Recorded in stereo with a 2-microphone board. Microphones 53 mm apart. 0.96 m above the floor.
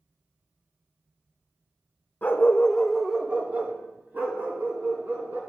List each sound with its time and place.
2.2 s a dog barking: 35° left (ahead or behind), 0.8 m; by 5.4 s 40° right (ahead or behind), 3 m